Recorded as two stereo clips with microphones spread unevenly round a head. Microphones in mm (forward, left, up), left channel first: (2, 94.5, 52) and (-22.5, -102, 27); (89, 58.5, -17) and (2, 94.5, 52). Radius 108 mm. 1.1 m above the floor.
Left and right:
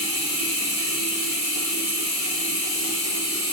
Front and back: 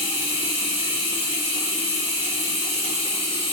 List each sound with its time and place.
0.0 s running water: 35° left, 1.4 m